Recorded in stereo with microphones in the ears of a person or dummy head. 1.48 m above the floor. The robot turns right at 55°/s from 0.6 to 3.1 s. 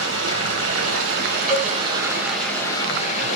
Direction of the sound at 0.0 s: 100° right.